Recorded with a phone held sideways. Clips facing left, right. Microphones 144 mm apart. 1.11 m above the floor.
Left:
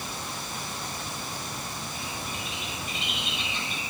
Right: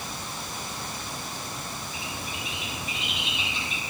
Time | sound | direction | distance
1.9 | a bird | centre (ahead or behind) | 6.5 m